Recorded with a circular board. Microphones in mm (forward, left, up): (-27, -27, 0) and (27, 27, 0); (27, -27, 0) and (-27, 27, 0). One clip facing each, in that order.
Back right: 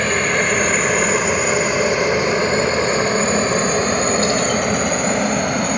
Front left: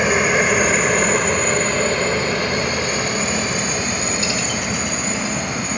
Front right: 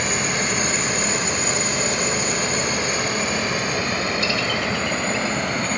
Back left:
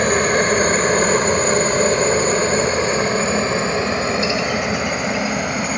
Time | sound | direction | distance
0.0 | a helicopter | 120° left | ?